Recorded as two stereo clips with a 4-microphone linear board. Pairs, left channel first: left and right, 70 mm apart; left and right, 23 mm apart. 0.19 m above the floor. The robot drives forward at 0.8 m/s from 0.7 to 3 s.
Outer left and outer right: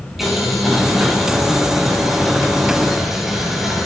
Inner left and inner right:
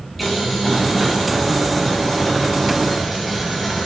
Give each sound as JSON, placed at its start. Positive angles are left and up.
{"t": 0.2, "sound": "boiling", "side_deg": -5, "distance_m": 7.0}